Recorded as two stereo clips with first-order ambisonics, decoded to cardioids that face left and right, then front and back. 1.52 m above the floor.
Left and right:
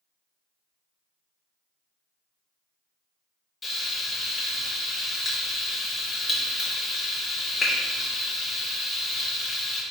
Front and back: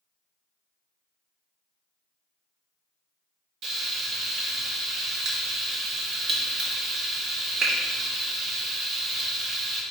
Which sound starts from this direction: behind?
Frying, at 3.6 s.